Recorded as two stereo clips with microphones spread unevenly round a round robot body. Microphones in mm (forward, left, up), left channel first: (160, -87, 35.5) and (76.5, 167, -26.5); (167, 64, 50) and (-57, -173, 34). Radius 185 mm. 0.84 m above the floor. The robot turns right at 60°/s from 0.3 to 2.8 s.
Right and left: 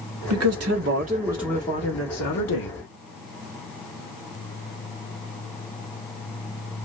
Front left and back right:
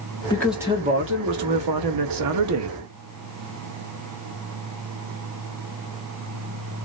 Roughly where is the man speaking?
Behind left.